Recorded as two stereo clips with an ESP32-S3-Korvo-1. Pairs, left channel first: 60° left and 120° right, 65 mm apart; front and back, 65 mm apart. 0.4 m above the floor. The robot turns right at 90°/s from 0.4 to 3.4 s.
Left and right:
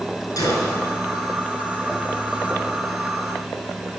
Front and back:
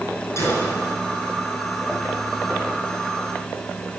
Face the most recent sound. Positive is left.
turn(degrees=-45)